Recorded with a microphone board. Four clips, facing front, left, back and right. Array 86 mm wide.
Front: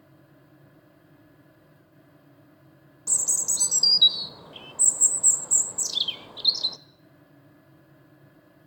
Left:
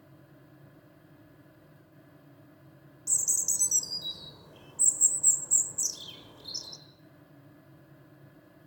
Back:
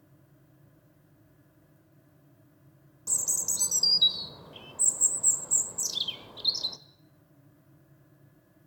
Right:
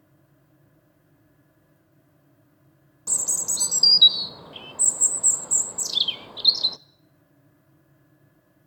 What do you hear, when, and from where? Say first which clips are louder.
3.1 s a bird: right 9 dB, front 3 dB; 70° right, 0.7 m